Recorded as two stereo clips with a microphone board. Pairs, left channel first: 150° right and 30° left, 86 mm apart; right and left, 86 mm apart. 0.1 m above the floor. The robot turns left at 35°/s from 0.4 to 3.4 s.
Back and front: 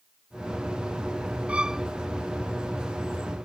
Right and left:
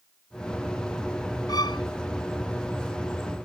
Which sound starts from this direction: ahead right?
A violin, at 1.5 s.